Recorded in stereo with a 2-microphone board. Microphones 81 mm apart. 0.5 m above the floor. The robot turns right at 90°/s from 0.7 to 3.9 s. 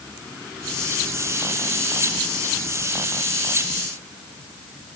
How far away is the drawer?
No drawer in this recording.